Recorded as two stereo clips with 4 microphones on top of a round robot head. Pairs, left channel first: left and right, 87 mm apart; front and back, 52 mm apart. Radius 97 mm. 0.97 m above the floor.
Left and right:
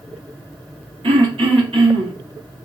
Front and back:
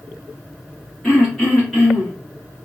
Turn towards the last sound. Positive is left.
turn(degrees=-90)